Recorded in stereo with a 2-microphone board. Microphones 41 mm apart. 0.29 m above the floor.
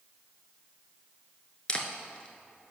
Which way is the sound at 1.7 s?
25° left (ahead or behind).